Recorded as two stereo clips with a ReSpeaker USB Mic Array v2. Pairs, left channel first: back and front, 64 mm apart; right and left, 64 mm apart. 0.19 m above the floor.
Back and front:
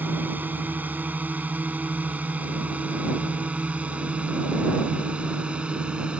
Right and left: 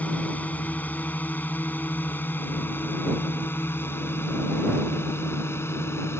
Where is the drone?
40° right; by 6.2 s 70° right.